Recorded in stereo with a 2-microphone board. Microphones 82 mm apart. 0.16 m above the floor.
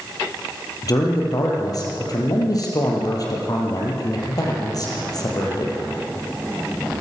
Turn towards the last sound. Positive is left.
turn(degrees=45)  # may be behind; listen again after turning